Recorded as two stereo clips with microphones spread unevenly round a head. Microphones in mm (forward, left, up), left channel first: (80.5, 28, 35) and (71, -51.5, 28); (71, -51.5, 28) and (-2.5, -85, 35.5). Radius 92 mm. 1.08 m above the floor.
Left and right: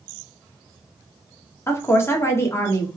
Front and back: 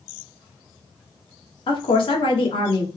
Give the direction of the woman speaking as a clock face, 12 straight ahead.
11 o'clock.